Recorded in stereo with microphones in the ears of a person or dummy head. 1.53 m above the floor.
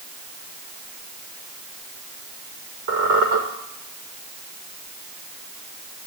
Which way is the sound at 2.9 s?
60° right (ahead or behind).